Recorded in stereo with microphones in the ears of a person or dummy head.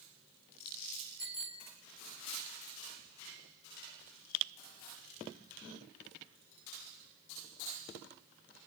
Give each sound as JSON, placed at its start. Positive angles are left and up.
{"t": 1.2, "sound": "a bicycle bell", "side_deg": 50, "distance_m": 4.0}